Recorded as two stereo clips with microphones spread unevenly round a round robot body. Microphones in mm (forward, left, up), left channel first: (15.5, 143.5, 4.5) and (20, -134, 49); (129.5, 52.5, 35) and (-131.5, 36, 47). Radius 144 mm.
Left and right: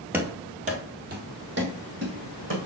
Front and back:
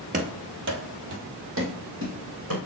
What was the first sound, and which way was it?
Running footsteps, 150° right.